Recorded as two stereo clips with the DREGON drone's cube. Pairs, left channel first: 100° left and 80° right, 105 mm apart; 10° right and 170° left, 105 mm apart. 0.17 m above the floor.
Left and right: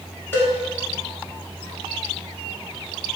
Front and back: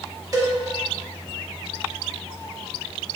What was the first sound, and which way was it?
A cowbell, 150° left.